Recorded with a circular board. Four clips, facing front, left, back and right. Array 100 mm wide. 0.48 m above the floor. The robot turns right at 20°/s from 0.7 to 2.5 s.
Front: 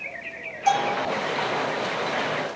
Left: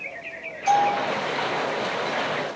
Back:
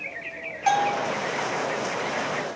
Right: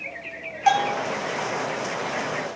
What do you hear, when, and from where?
0.7 s a bell: 110° right, 9 m; by 1.1 s 105° right, 9 m